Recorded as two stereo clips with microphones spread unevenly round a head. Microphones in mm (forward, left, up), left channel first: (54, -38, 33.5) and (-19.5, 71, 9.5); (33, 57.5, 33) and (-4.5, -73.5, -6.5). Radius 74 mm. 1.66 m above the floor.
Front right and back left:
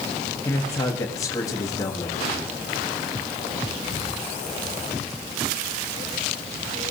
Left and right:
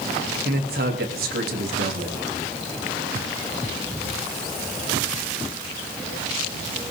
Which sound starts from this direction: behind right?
A man speaking, at 0.5 s.